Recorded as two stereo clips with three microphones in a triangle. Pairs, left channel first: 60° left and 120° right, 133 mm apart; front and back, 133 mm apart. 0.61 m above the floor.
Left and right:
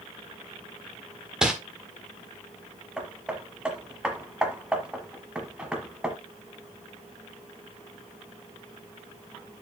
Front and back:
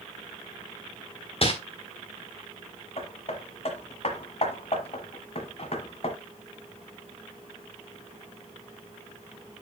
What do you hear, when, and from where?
1.4 s crumpling: 35° right, 1.6 m
3.0 s hammering: 35° right, 1.5 m